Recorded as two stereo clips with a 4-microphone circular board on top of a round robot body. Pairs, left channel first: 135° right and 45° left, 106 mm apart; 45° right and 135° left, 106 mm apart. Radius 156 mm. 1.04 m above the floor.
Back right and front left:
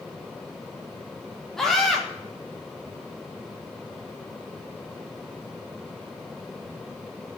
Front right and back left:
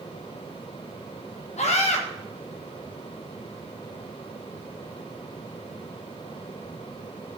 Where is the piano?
No piano in this recording.